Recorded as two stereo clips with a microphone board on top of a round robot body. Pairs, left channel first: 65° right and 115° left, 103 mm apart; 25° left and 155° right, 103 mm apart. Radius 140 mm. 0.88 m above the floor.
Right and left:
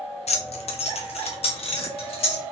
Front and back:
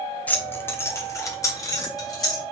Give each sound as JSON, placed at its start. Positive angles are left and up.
{"t": 0.3, "sound": "keys jangling", "azimuth_deg": -55, "distance_m": 0.8}